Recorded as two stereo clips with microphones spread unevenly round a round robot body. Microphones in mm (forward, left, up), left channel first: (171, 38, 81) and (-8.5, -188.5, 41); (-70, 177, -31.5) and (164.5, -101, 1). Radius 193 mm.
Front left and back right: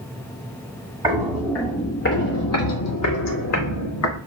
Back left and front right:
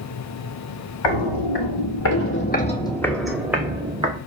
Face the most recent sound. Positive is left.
turn(degrees=25)